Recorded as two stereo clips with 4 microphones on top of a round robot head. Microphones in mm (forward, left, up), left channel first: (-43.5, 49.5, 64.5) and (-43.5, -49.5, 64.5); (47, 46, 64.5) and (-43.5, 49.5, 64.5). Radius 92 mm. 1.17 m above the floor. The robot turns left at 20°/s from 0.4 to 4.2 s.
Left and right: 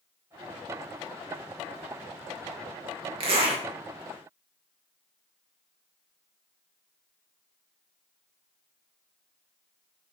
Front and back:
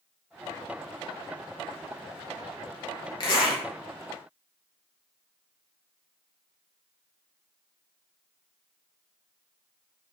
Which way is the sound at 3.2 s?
50° right.